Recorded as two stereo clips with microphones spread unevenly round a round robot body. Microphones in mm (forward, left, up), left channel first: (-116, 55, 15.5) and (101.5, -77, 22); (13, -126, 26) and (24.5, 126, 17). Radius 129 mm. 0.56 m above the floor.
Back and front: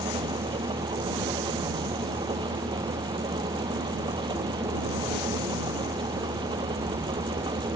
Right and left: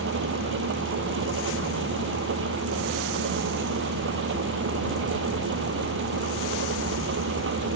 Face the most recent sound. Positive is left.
turn(degrees=45)